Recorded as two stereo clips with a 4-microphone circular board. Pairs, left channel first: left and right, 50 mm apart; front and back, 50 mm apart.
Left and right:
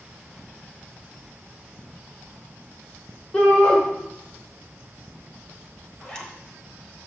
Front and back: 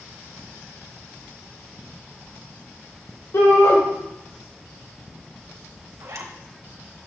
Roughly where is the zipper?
Behind.